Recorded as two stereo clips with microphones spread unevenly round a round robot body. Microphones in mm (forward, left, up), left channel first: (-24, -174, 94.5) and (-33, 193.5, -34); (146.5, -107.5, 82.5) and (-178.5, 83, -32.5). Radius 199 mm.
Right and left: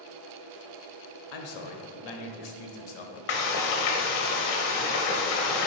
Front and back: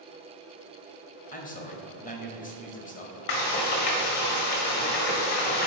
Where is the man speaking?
110° right, 1.5 m.